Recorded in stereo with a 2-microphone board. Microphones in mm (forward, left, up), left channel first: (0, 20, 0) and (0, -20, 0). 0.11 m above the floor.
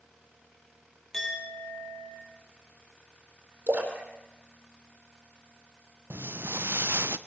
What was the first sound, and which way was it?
A clink, 10° left (ahead or behind).